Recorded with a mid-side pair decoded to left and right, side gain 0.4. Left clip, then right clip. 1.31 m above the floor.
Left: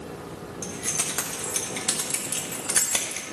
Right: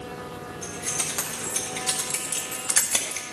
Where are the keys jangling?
55° left, 3 m; by 3.2 s 5° right, 3 m.